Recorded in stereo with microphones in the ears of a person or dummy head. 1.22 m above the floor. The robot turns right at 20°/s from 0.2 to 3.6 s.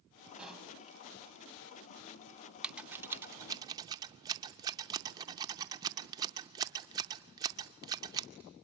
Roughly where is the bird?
I don't hear a bird.